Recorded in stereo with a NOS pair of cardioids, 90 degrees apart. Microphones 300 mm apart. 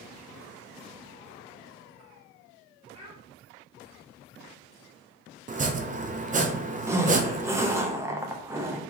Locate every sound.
2.9 s a child speaking: 15° right, 1.6 m
5.5 s chopping: 25° right, 0.6 m
6.9 s a zipper: 10° right, 0.7 m